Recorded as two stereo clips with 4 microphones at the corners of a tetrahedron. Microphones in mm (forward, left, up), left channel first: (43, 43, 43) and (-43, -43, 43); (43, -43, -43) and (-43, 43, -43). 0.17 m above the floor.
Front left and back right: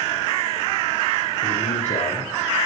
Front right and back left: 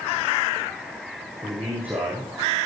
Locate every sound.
1.4 s a man speaking: 60° left, 8 m